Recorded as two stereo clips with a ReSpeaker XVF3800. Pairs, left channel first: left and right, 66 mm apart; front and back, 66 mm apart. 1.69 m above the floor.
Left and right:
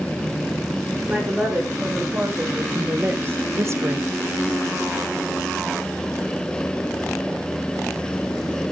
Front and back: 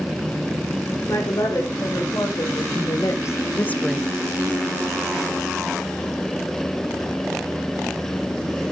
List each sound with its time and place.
1.1 s a woman speaking: 25° right, 4 m; by 4.0 s 105° right, 0.7 m